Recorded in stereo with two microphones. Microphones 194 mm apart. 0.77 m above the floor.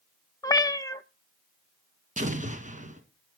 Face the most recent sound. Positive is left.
turn(degrees=-40)  # may be behind; listen again after turning